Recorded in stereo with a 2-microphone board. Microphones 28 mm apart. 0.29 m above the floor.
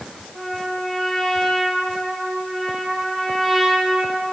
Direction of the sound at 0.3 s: 10° right (ahead or behind).